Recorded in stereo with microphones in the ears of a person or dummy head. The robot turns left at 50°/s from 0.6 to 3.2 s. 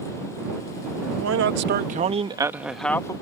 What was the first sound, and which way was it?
A man speaking, 105° right.